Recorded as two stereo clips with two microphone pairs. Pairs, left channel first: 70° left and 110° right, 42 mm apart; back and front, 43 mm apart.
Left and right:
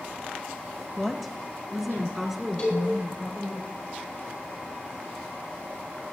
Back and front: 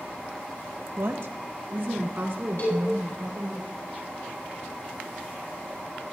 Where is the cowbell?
145° left, 7.5 m.